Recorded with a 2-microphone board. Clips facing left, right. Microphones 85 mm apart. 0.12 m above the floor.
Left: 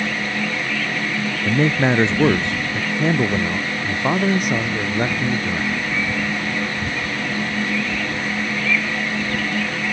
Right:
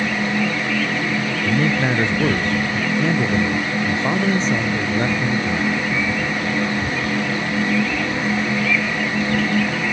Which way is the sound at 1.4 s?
25° left (ahead or behind).